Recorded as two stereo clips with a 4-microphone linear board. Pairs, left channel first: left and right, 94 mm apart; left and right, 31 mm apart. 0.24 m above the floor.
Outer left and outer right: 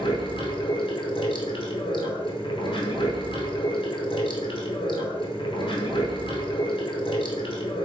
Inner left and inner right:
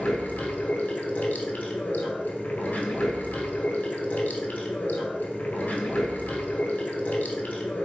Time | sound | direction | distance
0.0 | running water | 65° left (ahead or behind) | 0.9 m